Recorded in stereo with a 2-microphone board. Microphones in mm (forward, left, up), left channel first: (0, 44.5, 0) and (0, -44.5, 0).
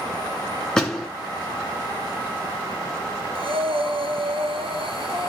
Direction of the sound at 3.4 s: 80° right.